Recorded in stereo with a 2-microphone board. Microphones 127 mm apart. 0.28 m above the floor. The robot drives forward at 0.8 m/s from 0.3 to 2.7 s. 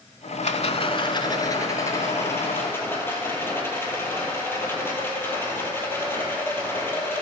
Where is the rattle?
65° left (ahead or behind), 0.7 m; by 7.2 s 15° left (ahead or behind), 2 m.